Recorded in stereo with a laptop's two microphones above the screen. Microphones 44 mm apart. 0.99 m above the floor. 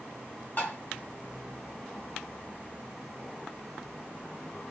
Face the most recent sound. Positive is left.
turn(degrees=40)  # may be behind; listen again after turning